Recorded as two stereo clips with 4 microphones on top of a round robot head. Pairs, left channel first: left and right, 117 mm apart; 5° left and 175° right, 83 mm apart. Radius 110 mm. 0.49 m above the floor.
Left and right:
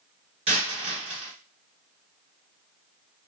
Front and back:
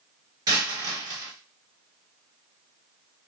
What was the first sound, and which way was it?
A dropped coin, 130° right.